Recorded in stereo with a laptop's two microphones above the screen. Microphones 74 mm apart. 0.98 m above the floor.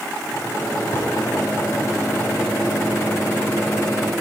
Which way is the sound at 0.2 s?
40° left (ahead or behind).